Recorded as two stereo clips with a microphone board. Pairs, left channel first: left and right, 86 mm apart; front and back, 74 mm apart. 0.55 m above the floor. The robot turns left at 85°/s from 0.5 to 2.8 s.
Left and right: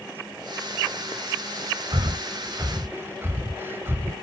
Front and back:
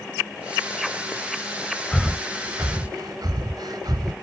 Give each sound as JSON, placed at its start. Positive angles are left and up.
{"t": 1.9, "sound": "breathing", "azimuth_deg": -80, "distance_m": 0.6}